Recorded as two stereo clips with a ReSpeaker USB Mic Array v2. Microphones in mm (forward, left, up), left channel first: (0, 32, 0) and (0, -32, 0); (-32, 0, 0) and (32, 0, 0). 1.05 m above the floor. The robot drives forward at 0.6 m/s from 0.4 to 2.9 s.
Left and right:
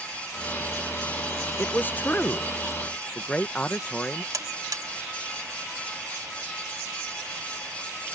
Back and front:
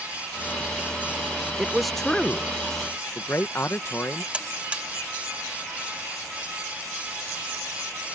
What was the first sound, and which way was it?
A man speaking, 65° left.